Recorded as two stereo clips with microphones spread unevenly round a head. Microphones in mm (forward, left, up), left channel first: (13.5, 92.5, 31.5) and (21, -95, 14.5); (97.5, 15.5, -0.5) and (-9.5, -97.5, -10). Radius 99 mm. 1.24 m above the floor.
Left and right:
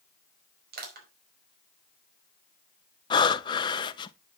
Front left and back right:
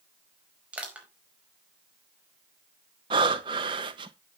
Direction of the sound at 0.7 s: 50° right.